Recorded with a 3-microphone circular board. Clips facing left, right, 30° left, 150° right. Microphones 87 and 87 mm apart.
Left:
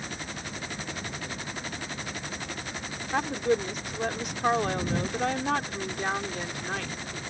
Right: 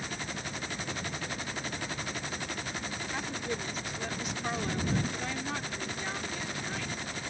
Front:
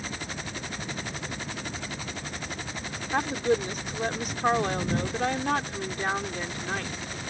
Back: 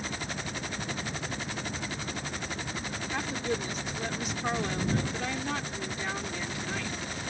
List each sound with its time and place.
3.1 s a woman speaking: 65° left